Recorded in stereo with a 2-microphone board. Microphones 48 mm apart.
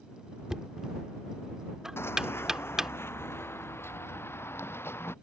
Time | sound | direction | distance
0.5 | knocking | 10° right (ahead or behind) | ?
2.0 | running footsteps | 55° left (ahead or behind) | ?